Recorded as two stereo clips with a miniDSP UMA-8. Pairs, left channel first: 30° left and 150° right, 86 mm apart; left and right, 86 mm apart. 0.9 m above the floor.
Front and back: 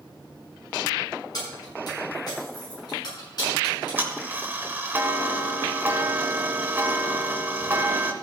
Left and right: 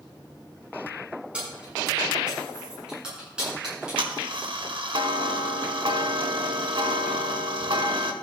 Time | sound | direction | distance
1.3 | keys jangling | 10° right | 7 m
3.6 | ticking | 85° right | 1.3 m